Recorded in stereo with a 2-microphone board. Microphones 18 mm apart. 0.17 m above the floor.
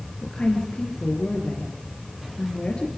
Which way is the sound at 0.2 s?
60° left (ahead or behind).